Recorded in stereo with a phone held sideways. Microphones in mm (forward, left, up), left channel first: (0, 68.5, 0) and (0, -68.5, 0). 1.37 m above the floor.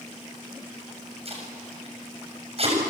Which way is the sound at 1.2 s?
45° right (ahead or behind).